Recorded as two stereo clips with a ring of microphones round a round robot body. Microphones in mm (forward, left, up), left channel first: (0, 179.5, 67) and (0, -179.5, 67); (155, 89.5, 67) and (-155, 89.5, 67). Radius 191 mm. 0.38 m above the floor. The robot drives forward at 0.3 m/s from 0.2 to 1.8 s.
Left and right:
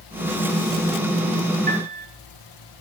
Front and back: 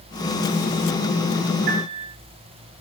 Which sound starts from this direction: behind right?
A piano, at 1.7 s.